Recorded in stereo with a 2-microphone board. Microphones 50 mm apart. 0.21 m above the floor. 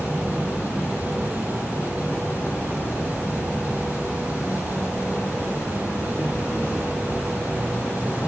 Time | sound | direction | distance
0.0 | an insect | 50° left (ahead or behind) | 1.6 m